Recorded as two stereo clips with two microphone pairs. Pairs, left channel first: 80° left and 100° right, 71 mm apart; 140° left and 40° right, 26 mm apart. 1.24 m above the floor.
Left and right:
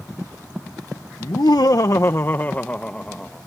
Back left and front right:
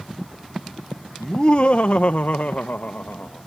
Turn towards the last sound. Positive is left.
turn(degrees=165)